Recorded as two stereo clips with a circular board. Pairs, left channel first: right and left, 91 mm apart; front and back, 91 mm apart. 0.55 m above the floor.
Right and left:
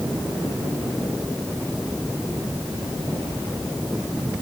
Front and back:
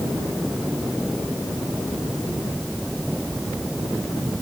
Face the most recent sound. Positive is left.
No sound to turn to.